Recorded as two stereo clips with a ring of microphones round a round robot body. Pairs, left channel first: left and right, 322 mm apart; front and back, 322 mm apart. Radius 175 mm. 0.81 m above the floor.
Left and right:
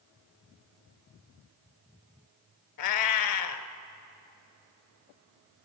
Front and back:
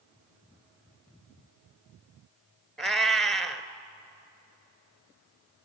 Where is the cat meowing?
90° left, 1.4 m.